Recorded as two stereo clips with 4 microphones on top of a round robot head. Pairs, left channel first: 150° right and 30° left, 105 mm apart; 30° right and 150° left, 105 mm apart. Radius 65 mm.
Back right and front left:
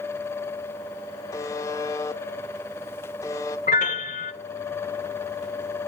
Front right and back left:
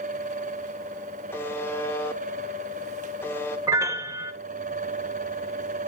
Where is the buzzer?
95° right, 0.6 m.